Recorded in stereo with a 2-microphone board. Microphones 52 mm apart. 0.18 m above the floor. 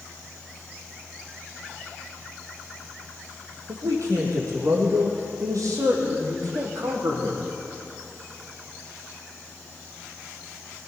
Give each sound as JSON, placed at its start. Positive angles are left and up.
{"t": 3.7, "sound": "a man speaking", "side_deg": -70, "distance_m": 6.0}